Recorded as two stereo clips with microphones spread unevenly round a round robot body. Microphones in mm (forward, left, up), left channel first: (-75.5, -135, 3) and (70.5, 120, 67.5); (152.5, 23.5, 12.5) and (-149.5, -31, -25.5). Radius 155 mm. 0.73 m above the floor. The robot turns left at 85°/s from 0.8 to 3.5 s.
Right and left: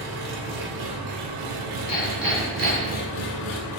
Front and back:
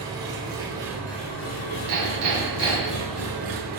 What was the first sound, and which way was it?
An engine running, 115° left.